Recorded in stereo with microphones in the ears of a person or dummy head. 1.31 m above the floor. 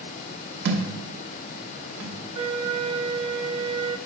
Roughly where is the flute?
Right.